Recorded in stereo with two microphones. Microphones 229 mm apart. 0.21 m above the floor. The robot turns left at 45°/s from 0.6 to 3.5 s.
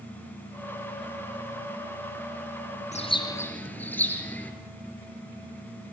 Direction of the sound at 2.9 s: 35° left (ahead or behind).